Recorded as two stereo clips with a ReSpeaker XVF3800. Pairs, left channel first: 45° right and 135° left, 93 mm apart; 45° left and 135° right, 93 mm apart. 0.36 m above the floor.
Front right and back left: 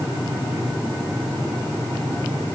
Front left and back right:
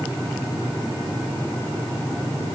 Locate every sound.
Only background noise.